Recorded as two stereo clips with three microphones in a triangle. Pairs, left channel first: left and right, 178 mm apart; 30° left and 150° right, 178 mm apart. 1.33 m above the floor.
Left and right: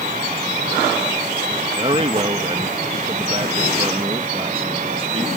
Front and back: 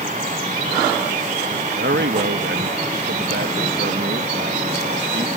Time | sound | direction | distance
1.8 | a man speaking | 150° right | ?